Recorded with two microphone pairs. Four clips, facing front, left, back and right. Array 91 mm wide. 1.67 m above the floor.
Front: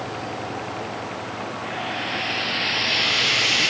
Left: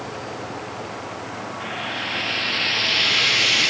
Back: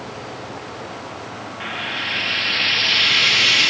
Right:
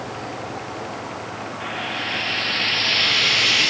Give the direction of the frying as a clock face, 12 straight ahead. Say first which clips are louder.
Right 2 dB, back 3 dB; 6 o'clock.